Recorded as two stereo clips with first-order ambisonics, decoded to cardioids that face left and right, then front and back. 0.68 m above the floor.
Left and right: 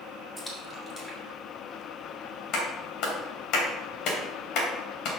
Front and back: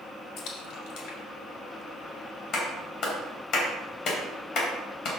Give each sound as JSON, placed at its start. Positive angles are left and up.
{"t": 0.4, "sound": "a splash", "azimuth_deg": 10, "distance_m": 1.7}
{"t": 2.5, "sound": "a clap", "azimuth_deg": 50, "distance_m": 2.5}